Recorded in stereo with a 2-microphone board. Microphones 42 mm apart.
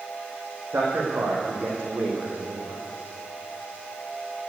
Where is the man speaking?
70° right (ahead or behind), 5 m; by 2.8 s 55° right (ahead or behind), 5.5 m.